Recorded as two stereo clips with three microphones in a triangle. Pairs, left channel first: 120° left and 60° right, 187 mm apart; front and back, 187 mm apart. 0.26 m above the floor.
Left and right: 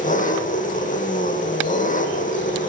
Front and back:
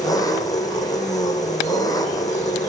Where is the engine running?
70° left, 3 m.